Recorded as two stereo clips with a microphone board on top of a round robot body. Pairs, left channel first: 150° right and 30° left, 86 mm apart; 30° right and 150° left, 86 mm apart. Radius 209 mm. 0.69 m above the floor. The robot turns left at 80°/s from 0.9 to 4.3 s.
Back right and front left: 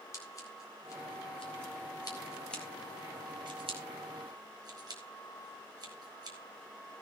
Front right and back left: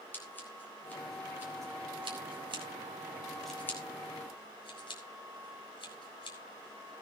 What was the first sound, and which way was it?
Scissors, 100° right.